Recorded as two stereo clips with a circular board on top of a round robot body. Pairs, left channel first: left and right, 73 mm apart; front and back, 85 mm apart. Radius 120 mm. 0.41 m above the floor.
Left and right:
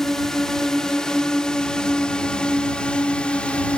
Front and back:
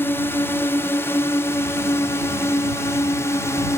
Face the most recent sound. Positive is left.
turn(degrees=25)